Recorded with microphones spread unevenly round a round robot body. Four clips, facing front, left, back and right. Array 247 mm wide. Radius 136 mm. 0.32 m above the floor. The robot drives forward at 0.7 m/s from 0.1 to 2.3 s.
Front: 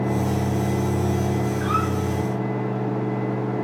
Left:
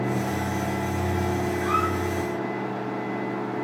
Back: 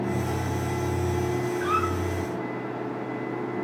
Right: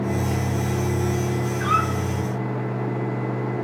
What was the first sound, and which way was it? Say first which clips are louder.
A squeak: right 4 dB, even; 90° right.